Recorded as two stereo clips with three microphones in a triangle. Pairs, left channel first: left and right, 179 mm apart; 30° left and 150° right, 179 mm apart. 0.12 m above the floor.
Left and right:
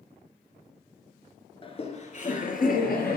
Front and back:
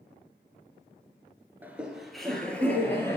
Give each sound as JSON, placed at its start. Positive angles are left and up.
{"t": 1.6, "sound": "laughter", "azimuth_deg": 135, "distance_m": 1.4}